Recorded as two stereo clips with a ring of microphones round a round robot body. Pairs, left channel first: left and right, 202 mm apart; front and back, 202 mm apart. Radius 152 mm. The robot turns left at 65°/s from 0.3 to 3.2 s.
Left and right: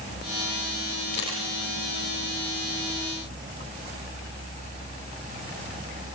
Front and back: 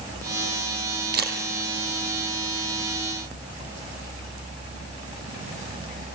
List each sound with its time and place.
1.1 s a camera shutter: 145° left, 6.5 m; by 1.4 s 130° left, 6.5 m